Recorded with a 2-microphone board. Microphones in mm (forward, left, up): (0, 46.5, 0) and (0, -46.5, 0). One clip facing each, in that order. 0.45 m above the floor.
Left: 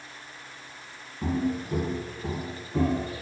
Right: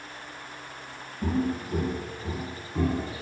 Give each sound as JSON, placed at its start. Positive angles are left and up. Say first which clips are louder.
{"t": 1.2, "sound": "footsteps", "louder": "even", "side_deg": 30, "distance_m": 1.1}